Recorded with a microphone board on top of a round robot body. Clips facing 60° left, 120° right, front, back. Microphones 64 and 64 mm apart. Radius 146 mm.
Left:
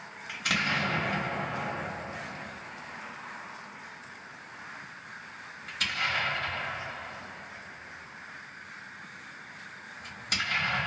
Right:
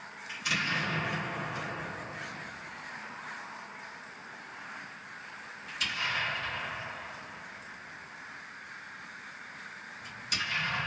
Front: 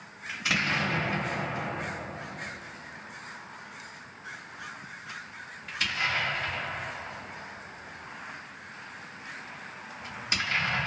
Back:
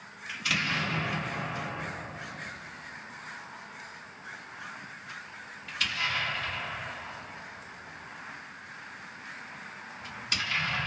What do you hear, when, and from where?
0.3 s an explosion: 60° left, 1.2 m